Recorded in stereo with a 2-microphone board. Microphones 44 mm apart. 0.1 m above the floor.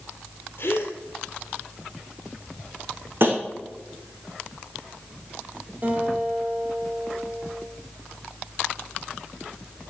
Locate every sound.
0.6 s a gasp: 55° left (ahead or behind), 1.9 m
3.2 s tapping: 55° right (ahead or behind), 3 m
5.8 s a guitar: 40° right (ahead or behind), 3 m